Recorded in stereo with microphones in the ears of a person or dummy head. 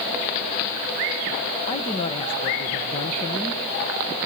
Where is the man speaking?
30° left (ahead or behind), 1.3 m.